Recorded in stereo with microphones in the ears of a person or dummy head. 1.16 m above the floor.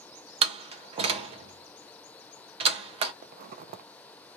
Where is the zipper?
45° right (ahead or behind), 0.6 m.